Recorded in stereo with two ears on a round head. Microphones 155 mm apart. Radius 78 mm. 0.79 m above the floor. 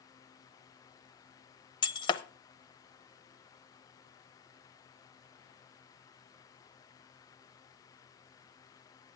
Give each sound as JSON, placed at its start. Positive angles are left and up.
{"t": 1.8, "sound": "breaking glass", "side_deg": 30, "distance_m": 0.7}